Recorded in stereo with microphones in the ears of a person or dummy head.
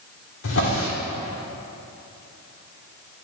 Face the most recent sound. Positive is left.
turn(degrees=70)  # may be behind; listen again after turning